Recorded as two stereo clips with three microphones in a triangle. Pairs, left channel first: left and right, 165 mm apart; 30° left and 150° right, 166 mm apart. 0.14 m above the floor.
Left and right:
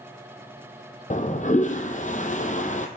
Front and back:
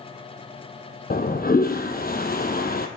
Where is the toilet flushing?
50° left, 1.1 m.